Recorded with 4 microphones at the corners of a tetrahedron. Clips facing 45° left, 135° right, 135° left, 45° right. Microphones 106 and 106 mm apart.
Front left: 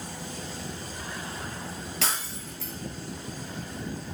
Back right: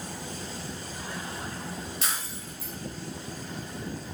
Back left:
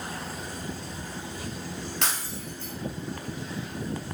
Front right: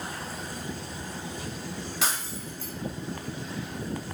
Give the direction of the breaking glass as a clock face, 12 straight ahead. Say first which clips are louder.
Front left 2 dB, front right 2 dB; 11 o'clock.